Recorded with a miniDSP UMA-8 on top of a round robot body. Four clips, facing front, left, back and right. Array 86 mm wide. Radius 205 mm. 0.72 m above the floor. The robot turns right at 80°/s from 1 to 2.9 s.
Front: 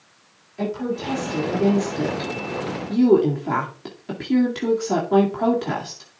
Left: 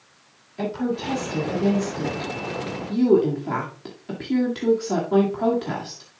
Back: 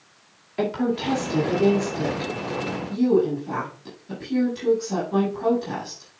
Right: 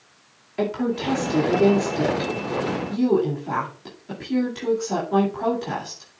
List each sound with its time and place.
0.6 s a woman speaking: 135° right, 2.5 m; by 6.1 s 15° left, 2.5 m